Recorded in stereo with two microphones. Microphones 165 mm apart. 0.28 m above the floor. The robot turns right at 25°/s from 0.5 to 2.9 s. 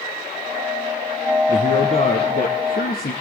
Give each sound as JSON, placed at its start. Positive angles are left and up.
{"t": 1.5, "sound": "a man speaking", "azimuth_deg": 50, "distance_m": 4.5}